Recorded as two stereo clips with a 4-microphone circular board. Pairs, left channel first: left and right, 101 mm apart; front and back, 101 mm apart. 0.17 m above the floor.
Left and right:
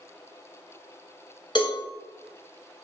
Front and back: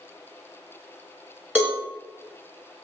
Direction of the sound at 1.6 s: 110° left.